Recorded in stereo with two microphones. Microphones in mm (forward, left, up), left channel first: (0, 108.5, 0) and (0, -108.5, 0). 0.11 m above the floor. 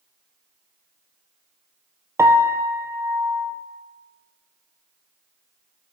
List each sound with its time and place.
2.2 s a piano: 10° right (ahead or behind), 0.8 m